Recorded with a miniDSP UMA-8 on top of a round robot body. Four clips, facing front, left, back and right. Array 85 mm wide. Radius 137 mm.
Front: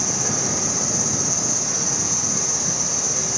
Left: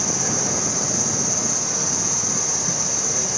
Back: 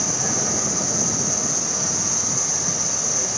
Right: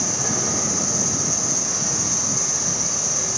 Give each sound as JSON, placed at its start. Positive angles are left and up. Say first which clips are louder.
{"t": 0.0, "sound": "an insect", "louder": "left 1 dB, even", "azimuth_deg": 85, "distance_m": 1.4}